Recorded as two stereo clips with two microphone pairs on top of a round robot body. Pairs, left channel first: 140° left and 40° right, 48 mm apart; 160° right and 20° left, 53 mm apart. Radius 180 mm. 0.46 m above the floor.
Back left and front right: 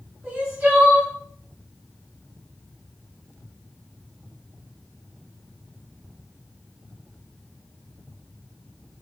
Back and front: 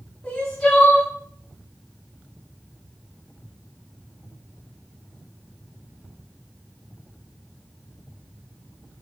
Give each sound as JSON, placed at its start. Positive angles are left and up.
{"t": 0.2, "sound": "crying", "azimuth_deg": -90, "distance_m": 3.5}